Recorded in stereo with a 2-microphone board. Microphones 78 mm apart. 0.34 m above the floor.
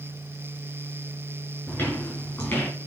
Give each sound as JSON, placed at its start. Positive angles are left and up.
{"t": 1.7, "sound": "footsteps", "side_deg": 30, "distance_m": 4.5}